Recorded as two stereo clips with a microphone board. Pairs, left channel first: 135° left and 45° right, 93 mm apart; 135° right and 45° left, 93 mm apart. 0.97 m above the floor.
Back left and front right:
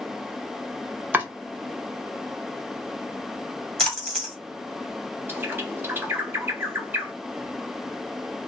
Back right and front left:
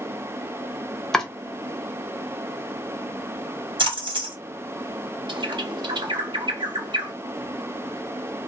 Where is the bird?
20° left, 0.6 m.